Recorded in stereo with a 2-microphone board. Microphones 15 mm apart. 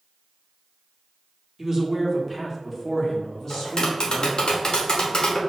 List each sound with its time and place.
1.6 s a man speaking: 15° right (ahead or behind), 1.0 m; by 4.5 s 30° left (ahead or behind), 1.3 m
3.5 s tapping: 60° left (ahead or behind), 0.9 m